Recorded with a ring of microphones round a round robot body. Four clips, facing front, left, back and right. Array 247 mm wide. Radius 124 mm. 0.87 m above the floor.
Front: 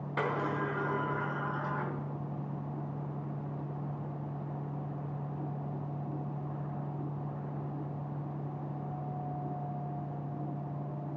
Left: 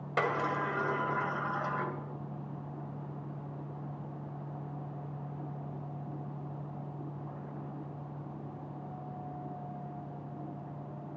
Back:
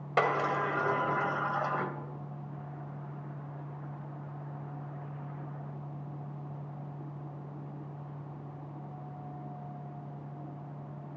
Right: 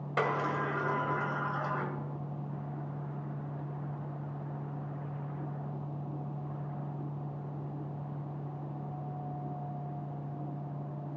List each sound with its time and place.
0.2 s a sliding door: 175° left, 1.8 m